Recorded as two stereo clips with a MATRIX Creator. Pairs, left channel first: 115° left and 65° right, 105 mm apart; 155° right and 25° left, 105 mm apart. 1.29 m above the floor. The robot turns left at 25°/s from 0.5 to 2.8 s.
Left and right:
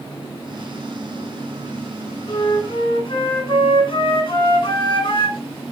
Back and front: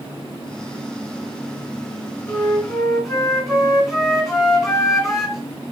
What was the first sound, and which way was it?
A flute, 130° left.